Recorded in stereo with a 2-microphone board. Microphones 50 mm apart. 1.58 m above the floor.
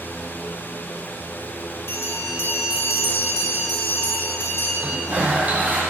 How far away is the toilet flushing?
About 1.3 m.